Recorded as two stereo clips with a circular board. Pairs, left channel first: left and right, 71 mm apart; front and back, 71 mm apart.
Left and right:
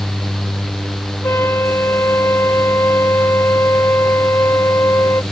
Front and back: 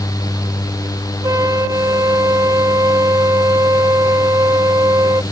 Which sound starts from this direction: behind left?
A flute, at 1.2 s.